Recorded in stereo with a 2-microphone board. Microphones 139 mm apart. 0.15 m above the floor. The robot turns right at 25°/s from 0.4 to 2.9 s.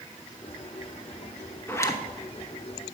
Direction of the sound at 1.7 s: 15° left (ahead or behind).